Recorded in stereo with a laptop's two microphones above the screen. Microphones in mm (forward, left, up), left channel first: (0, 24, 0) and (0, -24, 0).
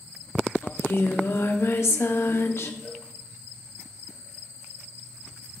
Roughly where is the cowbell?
Centre.